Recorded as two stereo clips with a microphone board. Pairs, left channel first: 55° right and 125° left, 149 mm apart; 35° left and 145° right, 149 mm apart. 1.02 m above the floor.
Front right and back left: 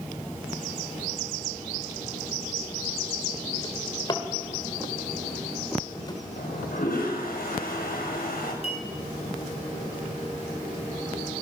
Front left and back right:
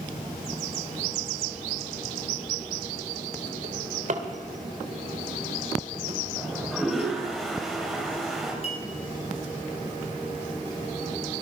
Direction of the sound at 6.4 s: 55° right.